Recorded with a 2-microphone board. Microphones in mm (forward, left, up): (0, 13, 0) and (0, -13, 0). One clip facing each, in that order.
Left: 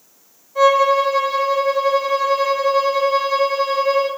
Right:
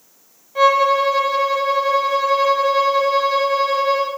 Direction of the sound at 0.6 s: 35° right (ahead or behind).